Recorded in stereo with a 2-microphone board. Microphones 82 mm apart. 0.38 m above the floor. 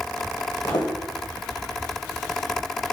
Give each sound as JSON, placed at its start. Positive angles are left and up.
{"t": 0.6, "sound": "footsteps", "side_deg": 70, "distance_m": 1.3}